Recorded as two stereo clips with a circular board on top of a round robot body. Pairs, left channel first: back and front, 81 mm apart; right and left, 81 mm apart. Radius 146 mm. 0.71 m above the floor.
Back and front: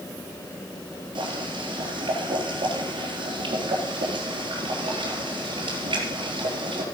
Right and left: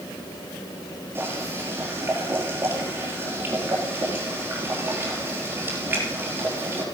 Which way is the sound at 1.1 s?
25° left.